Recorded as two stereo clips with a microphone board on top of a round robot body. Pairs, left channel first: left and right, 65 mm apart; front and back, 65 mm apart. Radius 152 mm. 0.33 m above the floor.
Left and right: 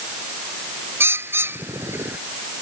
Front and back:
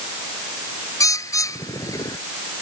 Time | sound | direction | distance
1.0 | a bird | 35° right | ?